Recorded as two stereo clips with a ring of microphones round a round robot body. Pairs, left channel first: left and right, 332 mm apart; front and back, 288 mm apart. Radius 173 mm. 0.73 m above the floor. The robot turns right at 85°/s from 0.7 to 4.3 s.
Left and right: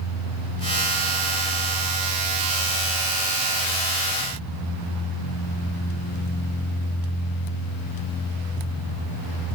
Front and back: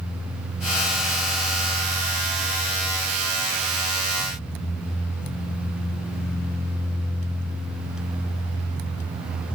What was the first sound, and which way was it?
Only background noise.